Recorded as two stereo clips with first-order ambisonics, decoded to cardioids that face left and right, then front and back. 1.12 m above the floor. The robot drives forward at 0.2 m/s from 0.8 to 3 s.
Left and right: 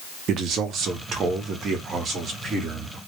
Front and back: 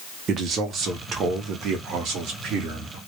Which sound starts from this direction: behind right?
A man speaking, at 0.3 s.